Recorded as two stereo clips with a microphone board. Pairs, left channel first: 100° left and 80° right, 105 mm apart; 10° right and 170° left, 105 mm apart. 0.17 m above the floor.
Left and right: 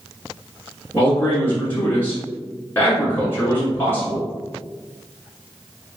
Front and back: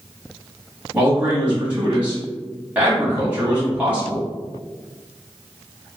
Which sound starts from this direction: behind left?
A man speaking, at 0.9 s.